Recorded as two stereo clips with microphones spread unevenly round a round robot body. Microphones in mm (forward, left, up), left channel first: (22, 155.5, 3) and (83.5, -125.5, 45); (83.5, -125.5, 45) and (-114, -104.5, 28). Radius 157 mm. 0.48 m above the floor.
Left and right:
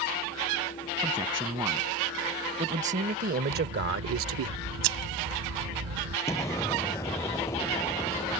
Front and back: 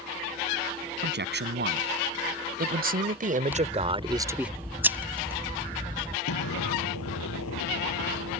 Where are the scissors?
105° right.